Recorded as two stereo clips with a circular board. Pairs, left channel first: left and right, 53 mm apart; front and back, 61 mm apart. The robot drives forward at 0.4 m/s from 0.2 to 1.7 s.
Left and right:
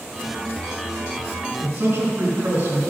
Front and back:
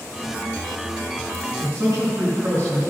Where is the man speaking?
145° right, 4.5 m.